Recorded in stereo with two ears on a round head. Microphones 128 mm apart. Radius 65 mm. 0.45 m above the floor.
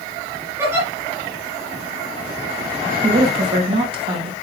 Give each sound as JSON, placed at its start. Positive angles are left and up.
{"t": 0.6, "sound": "a giggle", "side_deg": -15, "distance_m": 3.5}
{"t": 3.0, "sound": "a woman speaking", "side_deg": -35, "distance_m": 3.0}